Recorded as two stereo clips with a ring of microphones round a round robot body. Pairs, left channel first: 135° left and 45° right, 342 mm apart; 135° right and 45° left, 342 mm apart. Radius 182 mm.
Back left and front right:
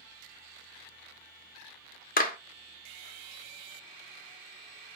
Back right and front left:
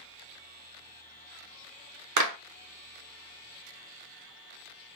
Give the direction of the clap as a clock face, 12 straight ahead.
10 o'clock.